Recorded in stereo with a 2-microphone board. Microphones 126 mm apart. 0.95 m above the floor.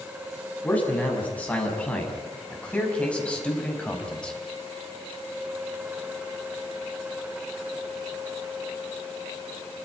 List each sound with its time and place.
0.6 s a man speaking: 10° left (ahead or behind), 6.5 m; by 4.4 s 5° left (ahead or behind), 4 m